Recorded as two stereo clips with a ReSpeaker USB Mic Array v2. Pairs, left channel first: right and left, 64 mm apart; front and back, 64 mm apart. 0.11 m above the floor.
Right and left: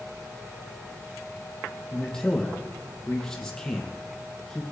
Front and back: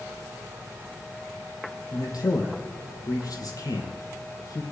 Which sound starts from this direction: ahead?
A man speaking, at 1.9 s.